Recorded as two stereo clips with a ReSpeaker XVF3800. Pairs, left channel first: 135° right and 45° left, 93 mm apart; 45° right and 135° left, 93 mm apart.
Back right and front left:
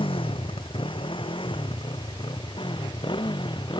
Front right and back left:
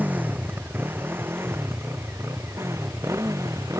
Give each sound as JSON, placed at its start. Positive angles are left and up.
{"t": 0.0, "sound": "a motorcycle", "azimuth_deg": -150}